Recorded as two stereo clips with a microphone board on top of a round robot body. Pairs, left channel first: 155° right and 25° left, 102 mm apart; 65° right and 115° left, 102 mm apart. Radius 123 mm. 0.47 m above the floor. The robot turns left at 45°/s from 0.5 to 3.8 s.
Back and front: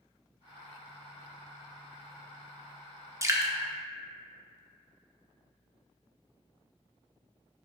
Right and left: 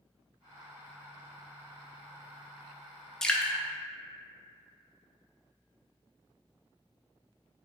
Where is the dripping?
10° left, 0.7 m; by 3.5 s straight ahead, 0.7 m.